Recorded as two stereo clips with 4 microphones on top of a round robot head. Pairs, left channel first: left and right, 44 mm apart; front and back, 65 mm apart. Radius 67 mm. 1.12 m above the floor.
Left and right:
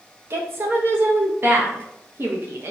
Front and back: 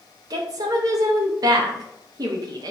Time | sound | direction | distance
0.3 | a woman speaking | 135° right | 0.8 m